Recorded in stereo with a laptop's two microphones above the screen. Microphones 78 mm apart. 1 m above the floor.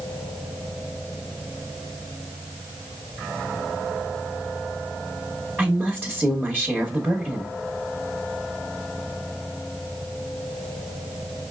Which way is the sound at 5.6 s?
20° right (ahead or behind).